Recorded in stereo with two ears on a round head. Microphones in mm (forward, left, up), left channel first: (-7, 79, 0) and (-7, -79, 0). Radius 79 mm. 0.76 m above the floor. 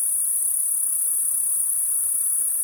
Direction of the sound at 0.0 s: 25° left (ahead or behind).